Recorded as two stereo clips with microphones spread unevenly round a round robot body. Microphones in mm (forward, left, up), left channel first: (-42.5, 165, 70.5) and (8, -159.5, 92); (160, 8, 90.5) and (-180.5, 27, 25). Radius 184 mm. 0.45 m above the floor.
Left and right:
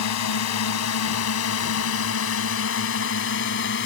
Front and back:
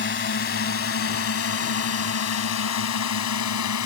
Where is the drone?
60° left; by 3.9 s 40° left.